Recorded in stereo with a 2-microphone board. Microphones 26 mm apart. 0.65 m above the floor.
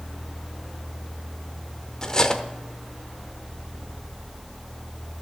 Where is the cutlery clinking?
25° left (ahead or behind), 0.8 m.